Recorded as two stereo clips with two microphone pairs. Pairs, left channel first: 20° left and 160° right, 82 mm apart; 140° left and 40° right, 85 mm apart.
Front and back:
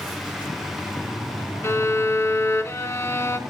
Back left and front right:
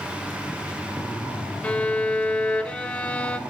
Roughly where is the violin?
Ahead left.